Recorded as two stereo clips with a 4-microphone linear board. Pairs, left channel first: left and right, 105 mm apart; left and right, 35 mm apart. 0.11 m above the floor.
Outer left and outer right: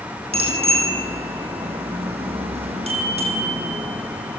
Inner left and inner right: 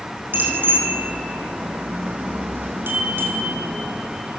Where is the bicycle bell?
70° right (ahead or behind), 4.5 m; by 4.4 s 75° right (ahead or behind), 3.5 m.